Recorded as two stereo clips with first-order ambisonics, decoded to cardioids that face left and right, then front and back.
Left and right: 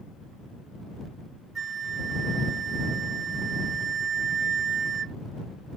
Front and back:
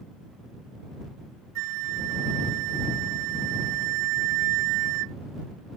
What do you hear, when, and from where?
1.6 s a flute: 155° right